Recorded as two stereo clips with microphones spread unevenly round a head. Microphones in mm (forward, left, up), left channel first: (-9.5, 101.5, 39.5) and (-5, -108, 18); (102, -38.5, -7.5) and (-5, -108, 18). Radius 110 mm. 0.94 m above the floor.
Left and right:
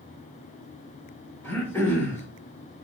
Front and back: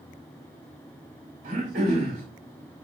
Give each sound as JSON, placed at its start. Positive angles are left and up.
{"t": 1.4, "sound": "throat clearing", "azimuth_deg": 175, "distance_m": 3.5}